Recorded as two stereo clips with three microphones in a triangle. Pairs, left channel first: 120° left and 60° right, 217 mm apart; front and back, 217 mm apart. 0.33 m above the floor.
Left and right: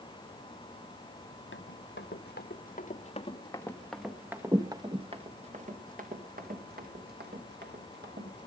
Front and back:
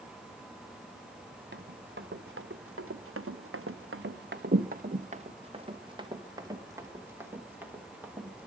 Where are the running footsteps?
145° left, 1.8 m; by 8.5 s 95° right, 3.5 m.